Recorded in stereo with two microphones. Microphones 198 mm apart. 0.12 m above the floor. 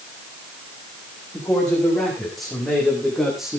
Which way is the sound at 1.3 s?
5° left (ahead or behind).